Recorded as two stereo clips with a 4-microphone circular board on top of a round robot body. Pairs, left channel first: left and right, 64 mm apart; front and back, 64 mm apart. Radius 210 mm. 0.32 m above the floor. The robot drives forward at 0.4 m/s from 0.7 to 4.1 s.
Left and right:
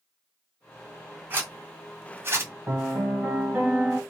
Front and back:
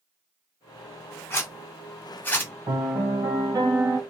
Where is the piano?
155° right, 1.5 m; by 4.0 s 160° right, 2.0 m.